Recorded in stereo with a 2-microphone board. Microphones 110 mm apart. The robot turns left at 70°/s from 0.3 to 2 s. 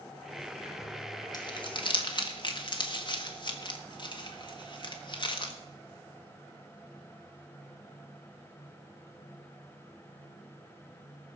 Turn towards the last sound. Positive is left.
turn(degrees=45)  # may be behind; listen again after turning